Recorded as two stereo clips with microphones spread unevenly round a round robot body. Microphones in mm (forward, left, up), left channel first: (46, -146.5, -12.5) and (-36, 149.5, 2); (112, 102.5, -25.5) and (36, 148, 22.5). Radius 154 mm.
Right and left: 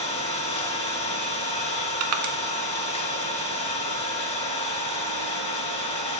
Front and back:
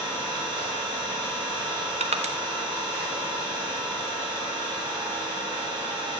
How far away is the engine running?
About 3 m.